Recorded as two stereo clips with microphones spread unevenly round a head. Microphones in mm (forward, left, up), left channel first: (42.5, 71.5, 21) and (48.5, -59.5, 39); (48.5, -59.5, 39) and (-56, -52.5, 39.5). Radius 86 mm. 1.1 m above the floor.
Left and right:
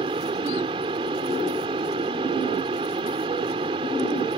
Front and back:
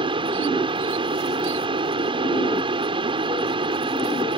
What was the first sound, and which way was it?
A fan, 145° right.